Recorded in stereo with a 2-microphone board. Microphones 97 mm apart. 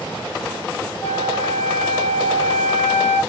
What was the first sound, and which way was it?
A flute, 30° right (ahead or behind).